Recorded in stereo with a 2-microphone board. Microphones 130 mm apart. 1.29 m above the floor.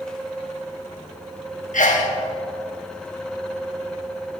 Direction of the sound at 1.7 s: 80° left.